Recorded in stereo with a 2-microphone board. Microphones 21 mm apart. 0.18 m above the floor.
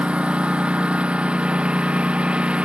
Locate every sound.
0.0 s a lawn mower: 85° right